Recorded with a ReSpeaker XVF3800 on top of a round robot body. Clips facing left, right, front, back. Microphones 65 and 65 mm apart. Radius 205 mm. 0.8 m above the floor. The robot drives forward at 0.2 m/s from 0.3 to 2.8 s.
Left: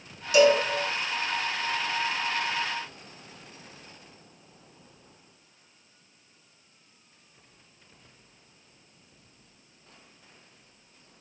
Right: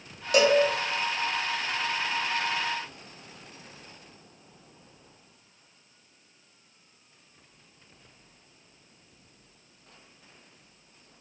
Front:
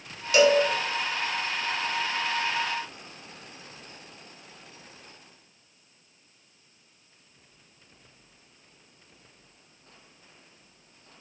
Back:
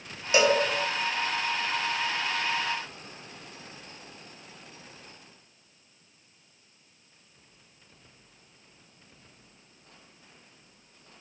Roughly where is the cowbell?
Behind right.